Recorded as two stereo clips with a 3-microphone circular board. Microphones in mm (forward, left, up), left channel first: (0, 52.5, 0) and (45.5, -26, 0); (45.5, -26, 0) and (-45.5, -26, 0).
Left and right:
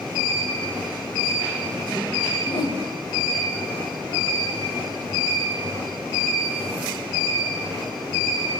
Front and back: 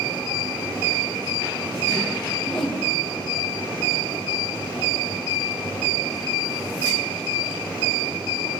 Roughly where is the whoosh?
Left.